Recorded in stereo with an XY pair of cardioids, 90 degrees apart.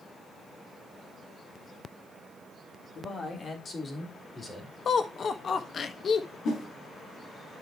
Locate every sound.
3.0 s a man speaking: 55° left, 3.5 m; by 4.8 s 25° left, 5 m
4.8 s laughter: 55° left, 1.5 m
6.5 s a whoosh: 70° left, 2.5 m